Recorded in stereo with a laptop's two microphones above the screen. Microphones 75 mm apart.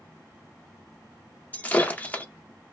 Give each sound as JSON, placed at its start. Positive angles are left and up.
{"t": 1.5, "sound": "breaking glass", "side_deg": 20, "distance_m": 0.5}